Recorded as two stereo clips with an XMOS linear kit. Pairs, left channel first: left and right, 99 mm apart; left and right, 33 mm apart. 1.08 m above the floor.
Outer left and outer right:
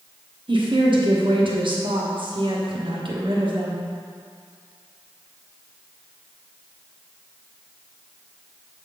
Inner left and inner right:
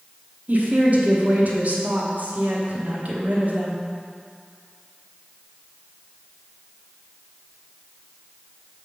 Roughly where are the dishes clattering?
I don't hear dishes clattering.